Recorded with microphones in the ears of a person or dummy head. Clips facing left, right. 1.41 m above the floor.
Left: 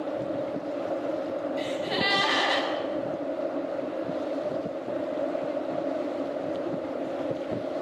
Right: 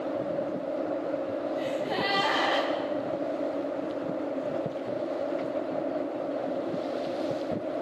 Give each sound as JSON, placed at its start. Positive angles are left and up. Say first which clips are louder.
{"t": 1.6, "sound": "a gasp", "louder": "even", "side_deg": 40, "distance_m": 7.0}